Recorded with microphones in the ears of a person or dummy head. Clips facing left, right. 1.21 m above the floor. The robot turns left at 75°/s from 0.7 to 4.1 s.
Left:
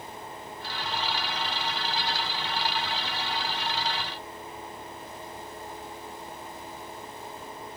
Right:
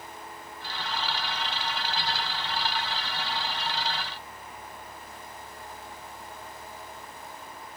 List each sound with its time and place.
Only background noise.